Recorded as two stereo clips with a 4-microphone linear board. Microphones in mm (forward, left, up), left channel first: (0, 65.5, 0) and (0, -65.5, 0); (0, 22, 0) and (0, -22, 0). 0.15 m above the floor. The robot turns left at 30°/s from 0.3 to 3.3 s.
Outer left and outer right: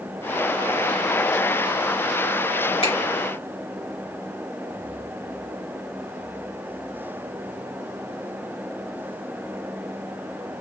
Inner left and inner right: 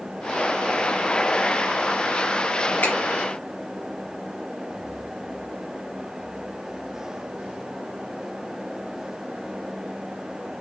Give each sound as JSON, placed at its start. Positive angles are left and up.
{"t": 2.8, "sound": "a finger snap", "side_deg": 45, "distance_m": 2.5}